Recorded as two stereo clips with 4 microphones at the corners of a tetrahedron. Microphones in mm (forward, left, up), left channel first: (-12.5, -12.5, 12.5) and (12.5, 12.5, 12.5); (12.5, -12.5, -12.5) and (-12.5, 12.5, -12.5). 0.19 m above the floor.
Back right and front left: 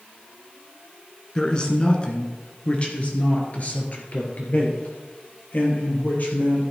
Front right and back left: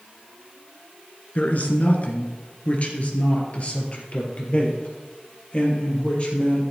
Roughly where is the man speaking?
Right.